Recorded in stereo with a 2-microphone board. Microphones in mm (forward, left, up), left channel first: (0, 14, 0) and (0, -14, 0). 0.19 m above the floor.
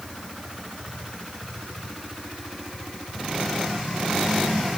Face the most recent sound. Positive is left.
No sound to turn to.